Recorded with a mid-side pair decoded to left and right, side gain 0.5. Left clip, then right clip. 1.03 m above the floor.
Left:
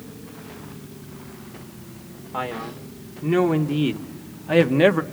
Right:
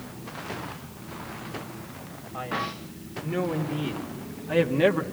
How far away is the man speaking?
About 2.5 m.